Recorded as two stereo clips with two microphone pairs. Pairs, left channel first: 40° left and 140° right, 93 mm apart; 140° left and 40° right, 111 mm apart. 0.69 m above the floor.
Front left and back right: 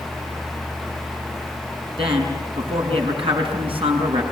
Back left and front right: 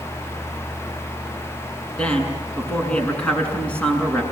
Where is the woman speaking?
140° right, 7 m.